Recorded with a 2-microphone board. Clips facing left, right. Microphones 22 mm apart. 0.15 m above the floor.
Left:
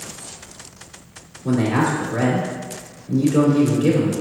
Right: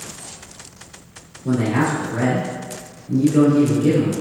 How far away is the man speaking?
About 1.4 m.